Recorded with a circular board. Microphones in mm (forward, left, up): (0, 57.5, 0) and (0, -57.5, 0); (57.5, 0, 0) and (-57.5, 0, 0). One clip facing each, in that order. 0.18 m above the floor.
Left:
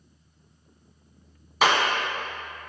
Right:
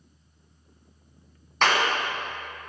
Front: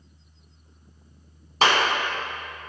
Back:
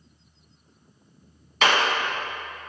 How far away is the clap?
About 1.5 m.